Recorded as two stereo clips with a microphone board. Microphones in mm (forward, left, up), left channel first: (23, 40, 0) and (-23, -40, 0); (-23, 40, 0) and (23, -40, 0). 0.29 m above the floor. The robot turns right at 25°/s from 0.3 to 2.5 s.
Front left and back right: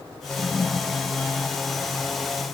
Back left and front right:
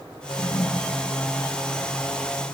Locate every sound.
0.3 s a toilet flushing: 135° left, 1.3 m; by 1.0 s 155° left, 1.3 m